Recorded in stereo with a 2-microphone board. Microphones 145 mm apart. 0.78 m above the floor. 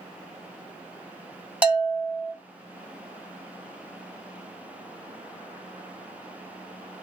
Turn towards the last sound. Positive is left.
turn(degrees=-10)  # may be behind; listen again after turning